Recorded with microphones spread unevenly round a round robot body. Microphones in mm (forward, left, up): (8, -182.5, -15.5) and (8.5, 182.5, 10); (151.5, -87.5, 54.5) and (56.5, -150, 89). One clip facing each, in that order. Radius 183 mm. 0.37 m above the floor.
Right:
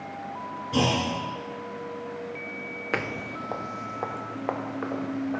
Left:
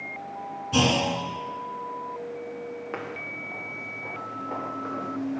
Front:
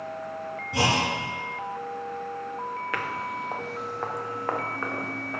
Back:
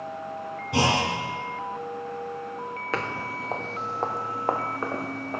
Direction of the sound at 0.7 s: 165° left.